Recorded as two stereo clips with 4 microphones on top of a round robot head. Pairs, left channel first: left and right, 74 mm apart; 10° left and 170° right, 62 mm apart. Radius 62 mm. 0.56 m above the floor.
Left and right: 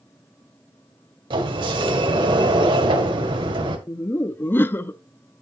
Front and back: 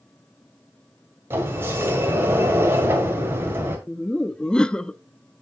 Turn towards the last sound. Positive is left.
turn(degrees=75)